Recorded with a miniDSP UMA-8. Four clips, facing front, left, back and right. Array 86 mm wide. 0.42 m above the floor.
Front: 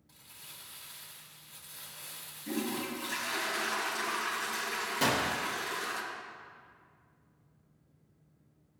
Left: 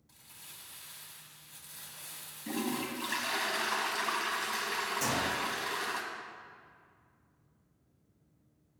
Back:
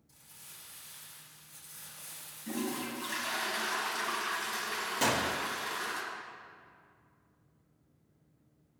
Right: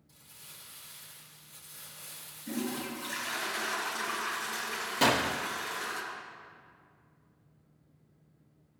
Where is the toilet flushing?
90° left, 1.8 m.